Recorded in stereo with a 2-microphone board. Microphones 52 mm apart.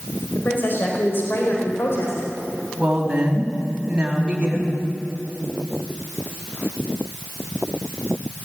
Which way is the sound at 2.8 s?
15° right (ahead or behind).